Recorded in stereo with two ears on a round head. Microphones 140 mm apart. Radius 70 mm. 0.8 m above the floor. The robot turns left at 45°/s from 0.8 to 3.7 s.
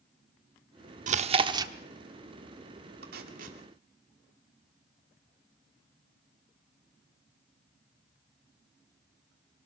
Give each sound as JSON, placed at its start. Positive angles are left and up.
{"t": 1.1, "sound": "chewing", "side_deg": -50, "distance_m": 1.1}
{"t": 3.0, "sound": "tape being pulled", "side_deg": -70, "distance_m": 2.5}